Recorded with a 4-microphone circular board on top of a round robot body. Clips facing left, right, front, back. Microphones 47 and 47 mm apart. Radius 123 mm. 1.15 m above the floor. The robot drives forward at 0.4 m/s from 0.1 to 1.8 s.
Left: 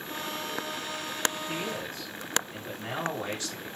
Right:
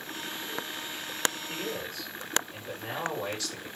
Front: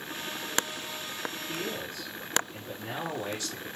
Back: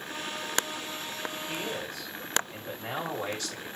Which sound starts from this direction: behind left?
A man speaking, at 1.5 s.